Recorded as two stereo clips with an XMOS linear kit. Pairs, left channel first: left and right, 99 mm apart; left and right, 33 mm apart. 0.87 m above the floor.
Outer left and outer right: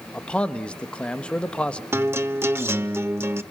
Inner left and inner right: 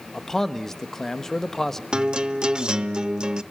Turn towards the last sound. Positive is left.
turn(degrees=-25)  # may be behind; listen again after turning